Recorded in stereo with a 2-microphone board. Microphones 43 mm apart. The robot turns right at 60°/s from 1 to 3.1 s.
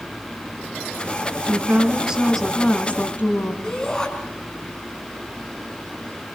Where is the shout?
15° left (ahead or behind), 4.5 m.